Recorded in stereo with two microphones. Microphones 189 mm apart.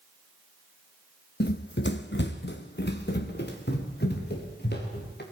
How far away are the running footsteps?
About 0.8 m.